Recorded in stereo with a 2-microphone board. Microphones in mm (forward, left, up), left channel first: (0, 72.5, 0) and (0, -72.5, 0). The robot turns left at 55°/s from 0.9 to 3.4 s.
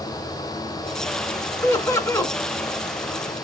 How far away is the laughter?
About 1.0 m.